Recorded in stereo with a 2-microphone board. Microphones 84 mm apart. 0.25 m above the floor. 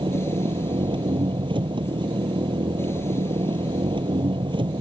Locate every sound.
0.0 s an engine running: 80° right